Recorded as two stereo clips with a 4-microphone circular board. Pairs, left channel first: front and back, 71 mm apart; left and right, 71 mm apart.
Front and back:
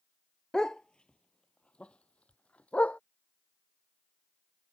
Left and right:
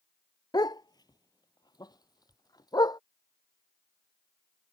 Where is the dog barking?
80° left; by 3.0 s 70° left.